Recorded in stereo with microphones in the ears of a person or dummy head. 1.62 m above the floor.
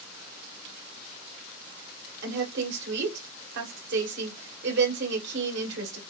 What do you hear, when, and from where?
2.2 s a woman speaking: 70° right (ahead or behind), 1.5 m